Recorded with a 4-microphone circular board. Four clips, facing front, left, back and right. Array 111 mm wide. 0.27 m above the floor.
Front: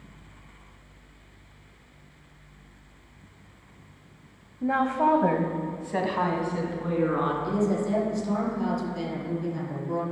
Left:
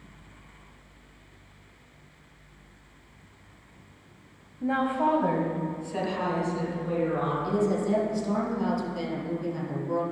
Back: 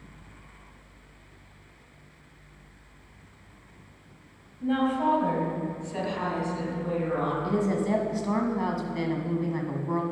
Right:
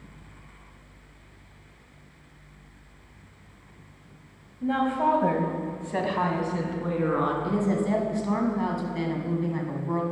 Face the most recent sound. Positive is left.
turn(degrees=-145)